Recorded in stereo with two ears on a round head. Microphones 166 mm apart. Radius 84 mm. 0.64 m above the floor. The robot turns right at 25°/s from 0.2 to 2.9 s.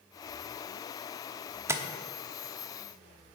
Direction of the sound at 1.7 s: 15° right (ahead or behind).